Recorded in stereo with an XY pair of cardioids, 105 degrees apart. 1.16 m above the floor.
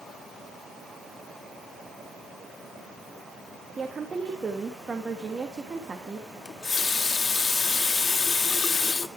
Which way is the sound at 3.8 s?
25° right.